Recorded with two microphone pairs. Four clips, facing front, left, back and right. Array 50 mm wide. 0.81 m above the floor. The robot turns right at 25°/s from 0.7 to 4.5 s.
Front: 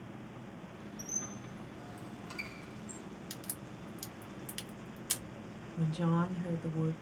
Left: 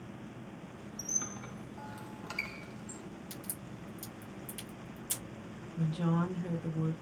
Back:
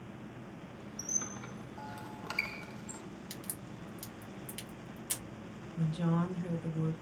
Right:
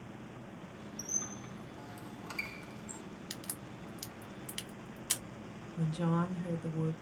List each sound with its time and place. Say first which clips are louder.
1.0 s a squeak: left 3 dB, back 3 dB; 140° left, 0.5 m; by 3.0 s 170° right, 0.5 m
3.3 s a crack: even, even; 110° right, 1.0 m; by 5.2 s 80° right, 1.0 m
5.8 s a woman speaking: left 1 dB, even; 90° left, 0.6 m